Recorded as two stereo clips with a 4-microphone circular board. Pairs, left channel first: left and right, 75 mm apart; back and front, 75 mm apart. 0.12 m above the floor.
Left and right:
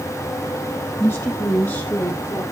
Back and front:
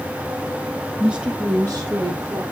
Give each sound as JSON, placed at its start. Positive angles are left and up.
{"t": 1.0, "sound": "a woman speaking", "azimuth_deg": 70, "distance_m": 1.1}